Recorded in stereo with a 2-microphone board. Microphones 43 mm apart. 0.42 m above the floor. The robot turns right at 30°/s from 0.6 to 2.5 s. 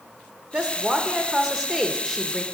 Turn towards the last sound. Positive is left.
turn(degrees=10)